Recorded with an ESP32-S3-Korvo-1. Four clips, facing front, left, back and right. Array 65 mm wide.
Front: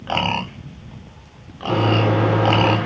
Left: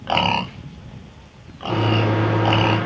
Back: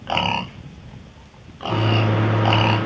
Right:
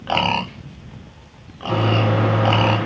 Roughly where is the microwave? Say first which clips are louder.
Right 1 dB, front 3 dB; ahead.